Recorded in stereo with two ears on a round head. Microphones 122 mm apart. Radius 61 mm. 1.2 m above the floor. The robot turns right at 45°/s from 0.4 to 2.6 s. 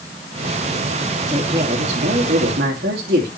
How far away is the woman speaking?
About 3 m.